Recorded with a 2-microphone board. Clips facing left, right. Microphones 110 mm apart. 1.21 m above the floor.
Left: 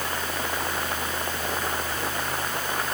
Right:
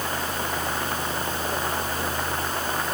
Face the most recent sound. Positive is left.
No sound to turn to.